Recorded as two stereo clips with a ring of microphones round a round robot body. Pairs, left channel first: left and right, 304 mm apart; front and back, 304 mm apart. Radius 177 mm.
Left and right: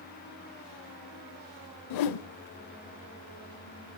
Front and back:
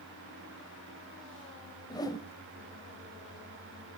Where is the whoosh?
80° left, 0.6 m.